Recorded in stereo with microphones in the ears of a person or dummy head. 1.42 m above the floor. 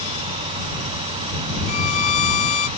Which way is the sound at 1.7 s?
45° left (ahead or behind).